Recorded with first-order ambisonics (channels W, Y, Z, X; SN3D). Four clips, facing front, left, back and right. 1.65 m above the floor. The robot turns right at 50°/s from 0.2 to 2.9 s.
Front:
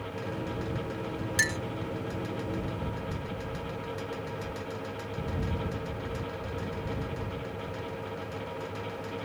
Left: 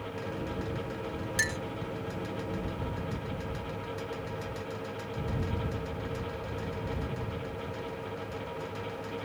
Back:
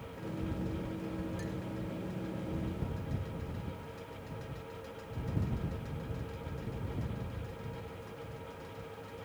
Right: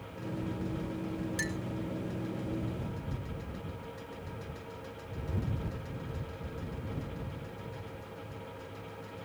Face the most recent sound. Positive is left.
turn(degrees=100)